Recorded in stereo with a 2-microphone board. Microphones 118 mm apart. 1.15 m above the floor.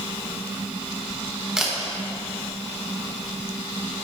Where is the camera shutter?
5° right (ahead or behind), 1.2 m.